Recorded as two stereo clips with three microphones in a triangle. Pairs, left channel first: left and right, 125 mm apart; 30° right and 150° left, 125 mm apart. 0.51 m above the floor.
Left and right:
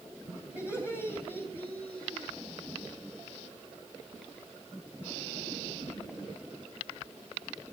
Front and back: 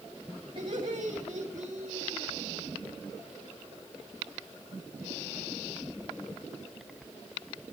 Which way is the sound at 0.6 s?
165° right.